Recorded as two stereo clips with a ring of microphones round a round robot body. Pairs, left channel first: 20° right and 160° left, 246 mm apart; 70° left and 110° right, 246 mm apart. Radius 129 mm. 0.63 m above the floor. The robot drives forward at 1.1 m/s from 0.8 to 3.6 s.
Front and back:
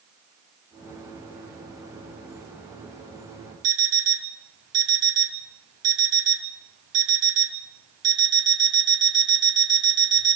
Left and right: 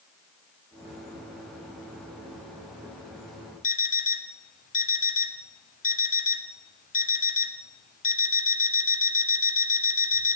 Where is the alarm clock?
125° left, 1.6 m.